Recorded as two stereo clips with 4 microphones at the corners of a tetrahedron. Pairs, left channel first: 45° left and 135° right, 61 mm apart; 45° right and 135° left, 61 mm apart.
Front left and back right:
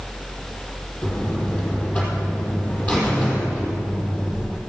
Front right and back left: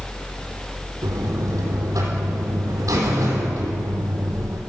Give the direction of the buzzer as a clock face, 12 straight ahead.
8 o'clock.